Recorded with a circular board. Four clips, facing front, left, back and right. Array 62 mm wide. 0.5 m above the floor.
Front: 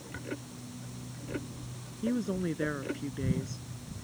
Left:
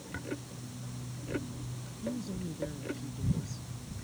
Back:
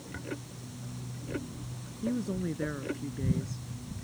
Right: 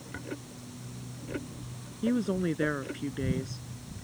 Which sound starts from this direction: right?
A woman speaking, at 2.0 s.